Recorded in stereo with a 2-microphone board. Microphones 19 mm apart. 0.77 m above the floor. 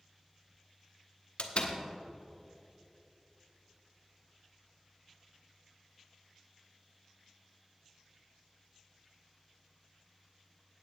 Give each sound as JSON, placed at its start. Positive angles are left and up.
{"t": 1.4, "sound": "a door slam", "side_deg": 65, "distance_m": 1.0}